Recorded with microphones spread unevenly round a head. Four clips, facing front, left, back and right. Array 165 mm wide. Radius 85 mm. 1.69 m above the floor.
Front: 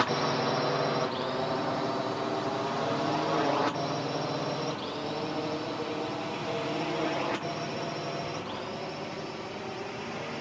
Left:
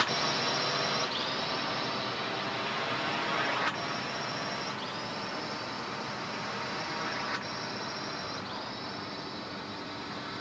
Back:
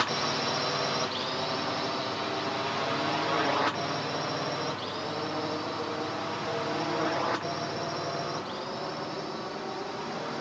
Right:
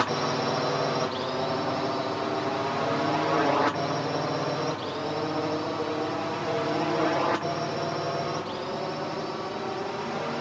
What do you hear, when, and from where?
0.0 s a drone: 60° right; by 10.4 s 95° right